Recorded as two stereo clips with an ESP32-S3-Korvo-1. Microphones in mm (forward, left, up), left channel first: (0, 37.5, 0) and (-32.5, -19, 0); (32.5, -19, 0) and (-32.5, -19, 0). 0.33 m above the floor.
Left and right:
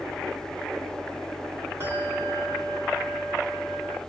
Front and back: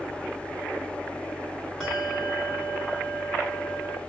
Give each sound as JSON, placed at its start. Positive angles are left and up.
{"t": 1.8, "sound": "a bell", "azimuth_deg": -90, "distance_m": 2.0}